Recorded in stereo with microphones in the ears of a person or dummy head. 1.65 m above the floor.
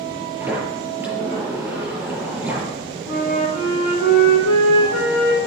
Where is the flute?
80° left, 3 m.